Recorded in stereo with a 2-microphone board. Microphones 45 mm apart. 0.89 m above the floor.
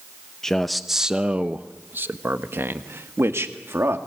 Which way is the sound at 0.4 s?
10° left (ahead or behind).